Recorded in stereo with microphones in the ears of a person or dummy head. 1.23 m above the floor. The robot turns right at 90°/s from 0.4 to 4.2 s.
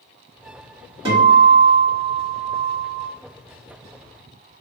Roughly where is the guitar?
Ahead right.